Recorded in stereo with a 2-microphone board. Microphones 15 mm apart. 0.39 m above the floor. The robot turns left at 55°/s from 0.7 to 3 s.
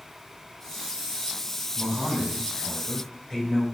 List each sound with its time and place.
1.8 s a man speaking: 125° right, 1.6 m; by 3.6 s 170° left, 1.6 m